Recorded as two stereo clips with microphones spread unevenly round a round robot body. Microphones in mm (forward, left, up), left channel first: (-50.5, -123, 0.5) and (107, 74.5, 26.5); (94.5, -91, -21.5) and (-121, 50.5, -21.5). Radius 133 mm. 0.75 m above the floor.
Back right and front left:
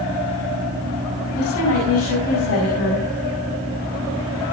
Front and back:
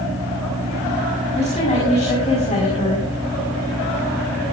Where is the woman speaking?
95° right, 5 m.